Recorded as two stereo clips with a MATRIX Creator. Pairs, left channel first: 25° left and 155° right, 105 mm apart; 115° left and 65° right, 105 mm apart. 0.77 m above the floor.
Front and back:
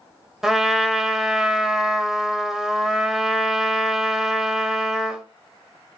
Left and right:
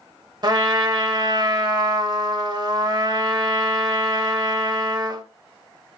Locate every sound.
0.4 s a trumpet: 75° right, 0.6 m